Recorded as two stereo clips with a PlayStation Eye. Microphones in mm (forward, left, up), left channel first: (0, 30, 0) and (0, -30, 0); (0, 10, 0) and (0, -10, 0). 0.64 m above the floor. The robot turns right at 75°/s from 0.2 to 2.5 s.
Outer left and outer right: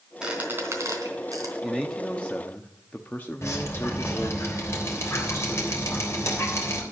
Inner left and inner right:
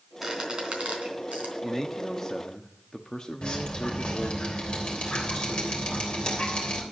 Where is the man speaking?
10° right, 1.0 m; by 4.4 s 55° left, 1.0 m.